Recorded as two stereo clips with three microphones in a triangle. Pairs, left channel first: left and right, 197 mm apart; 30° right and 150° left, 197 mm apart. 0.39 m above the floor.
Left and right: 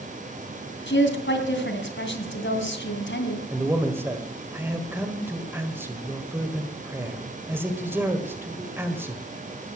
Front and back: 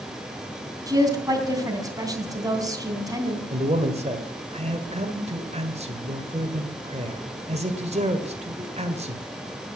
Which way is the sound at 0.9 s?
80° left.